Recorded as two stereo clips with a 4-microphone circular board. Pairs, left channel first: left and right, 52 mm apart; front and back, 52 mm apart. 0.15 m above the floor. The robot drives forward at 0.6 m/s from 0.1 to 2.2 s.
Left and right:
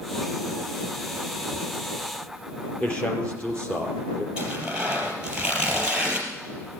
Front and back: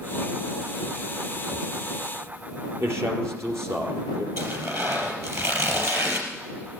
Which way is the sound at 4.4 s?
160° right.